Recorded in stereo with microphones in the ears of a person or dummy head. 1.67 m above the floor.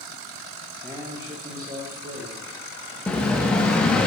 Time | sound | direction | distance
0.8 | a man speaking | 5° left (ahead or behind) | 0.8 m
3.1 | an explosion | 5° left (ahead or behind) | 0.5 m